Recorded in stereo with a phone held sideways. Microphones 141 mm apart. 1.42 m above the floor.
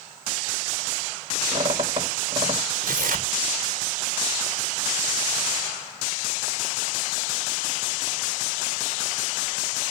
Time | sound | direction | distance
1.5 | a squeak | 35° right (ahead or behind) | 4.5 m
2.8 | tearing paper | 80° right | 1.0 m